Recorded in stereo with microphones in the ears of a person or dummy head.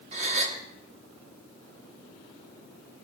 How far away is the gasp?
About 1.7 m.